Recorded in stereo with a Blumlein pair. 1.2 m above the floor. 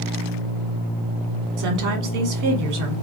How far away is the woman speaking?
About 1.7 m.